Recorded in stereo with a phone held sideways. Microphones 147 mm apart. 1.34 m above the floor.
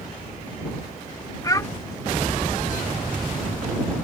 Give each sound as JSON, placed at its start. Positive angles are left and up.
{"t": 1.4, "sound": "a child speaking", "side_deg": 25}